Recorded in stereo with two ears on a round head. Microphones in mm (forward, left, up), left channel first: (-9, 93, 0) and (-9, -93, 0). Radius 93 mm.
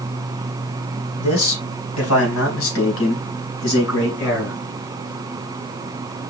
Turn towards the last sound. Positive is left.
turn(degrees=85)